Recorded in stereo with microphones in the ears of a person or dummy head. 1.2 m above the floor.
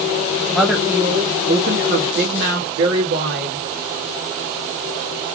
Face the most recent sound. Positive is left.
turn(degrees=-60)  # may be behind; listen again after turning